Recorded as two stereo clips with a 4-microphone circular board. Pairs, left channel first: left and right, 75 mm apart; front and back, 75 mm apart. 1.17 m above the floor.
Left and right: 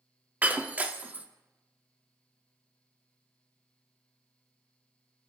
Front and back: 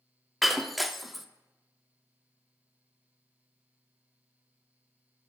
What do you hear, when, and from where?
0.4 s breaking glass: 90° right, 0.7 m